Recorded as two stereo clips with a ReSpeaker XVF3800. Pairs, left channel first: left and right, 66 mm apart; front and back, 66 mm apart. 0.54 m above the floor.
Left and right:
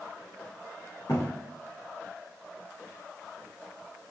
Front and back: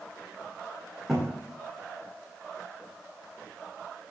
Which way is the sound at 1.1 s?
95° left.